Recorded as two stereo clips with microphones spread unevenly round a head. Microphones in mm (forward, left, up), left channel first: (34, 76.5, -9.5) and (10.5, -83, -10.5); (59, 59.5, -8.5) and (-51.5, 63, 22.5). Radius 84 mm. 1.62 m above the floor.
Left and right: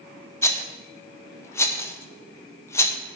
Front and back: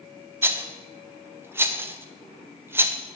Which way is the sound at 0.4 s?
145° left.